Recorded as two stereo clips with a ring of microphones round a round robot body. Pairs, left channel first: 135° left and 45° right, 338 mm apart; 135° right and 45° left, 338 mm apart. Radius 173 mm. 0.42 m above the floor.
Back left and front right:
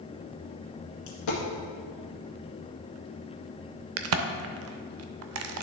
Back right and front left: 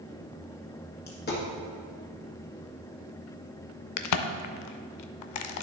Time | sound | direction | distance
1.1 | a dropped coin | 160° left | 1.9 m
4.0 | a crack | 95° right | 0.5 m